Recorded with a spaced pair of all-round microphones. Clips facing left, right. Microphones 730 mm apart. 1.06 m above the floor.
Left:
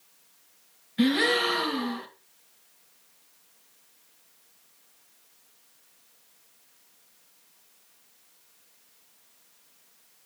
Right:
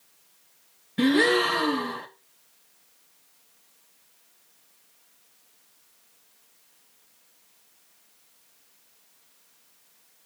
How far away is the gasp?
About 1.8 m.